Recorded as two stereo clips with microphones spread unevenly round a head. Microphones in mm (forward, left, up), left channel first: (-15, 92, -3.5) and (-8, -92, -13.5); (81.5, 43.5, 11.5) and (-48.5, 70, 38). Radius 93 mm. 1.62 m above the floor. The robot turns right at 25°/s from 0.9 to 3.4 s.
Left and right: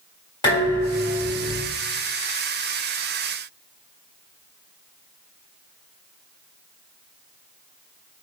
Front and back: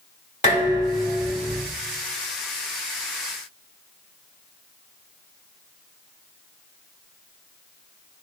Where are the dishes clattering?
25° left, 3.5 m; by 1.6 s 45° left, 3.5 m.